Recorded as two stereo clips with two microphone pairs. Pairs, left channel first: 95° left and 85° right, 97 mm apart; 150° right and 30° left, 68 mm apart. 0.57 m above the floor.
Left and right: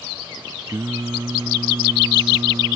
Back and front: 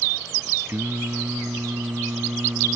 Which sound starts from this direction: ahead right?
Singing, at 0.7 s.